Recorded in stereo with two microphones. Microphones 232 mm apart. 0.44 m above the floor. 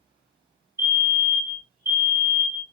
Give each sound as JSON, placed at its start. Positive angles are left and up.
{"t": 0.8, "sound": "a fire alarm", "side_deg": -10, "distance_m": 2.5}